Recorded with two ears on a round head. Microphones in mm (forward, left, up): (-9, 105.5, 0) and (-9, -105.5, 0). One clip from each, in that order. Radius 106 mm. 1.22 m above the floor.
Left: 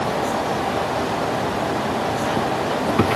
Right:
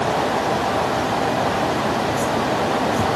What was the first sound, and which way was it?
Only background noise.